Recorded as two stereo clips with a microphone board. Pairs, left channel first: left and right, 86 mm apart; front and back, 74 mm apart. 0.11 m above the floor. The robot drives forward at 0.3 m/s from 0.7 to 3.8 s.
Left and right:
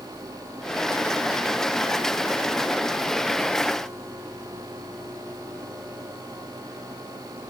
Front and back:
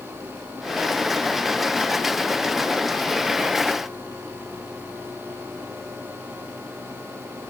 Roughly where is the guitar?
No guitar in this recording.